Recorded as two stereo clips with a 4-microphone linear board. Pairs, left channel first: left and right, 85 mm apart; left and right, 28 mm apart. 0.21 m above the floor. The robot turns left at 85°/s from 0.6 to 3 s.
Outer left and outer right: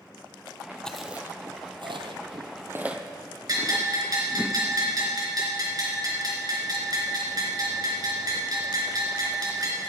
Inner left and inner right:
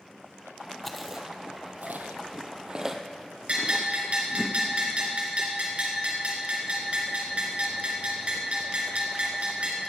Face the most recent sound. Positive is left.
turn(degrees=-50)  # may be behind; listen again after turning